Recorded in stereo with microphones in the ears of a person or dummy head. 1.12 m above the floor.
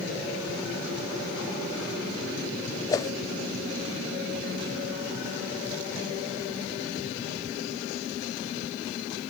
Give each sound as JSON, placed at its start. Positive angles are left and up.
{"t": 2.9, "sound": "a whoosh", "side_deg": 15}